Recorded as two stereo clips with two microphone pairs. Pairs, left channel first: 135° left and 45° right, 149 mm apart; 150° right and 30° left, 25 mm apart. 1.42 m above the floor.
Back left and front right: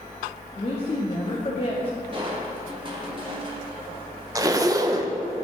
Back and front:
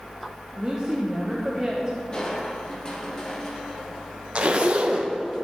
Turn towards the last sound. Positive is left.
turn(degrees=10)